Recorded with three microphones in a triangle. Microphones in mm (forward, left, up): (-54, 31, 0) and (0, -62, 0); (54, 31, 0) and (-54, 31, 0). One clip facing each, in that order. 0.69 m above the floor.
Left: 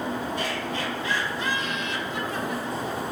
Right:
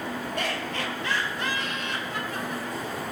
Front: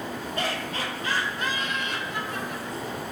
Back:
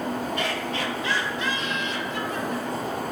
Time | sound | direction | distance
0.4 | laughter | 50° right | 2.5 m